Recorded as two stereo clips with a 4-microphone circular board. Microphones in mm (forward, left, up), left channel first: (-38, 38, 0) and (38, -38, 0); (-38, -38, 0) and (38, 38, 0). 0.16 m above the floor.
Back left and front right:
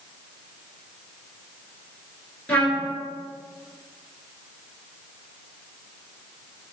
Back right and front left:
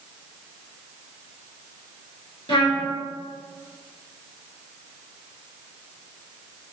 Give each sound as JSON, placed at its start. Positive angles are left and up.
{"t": 2.5, "sound": "a trumpet", "azimuth_deg": -150, "distance_m": 1.7}